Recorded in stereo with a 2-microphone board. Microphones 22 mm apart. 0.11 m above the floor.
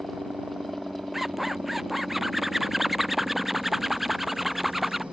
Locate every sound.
0.0 s a helicopter: 65° right (ahead or behind)
1.1 s a zipper: 5° right (ahead or behind)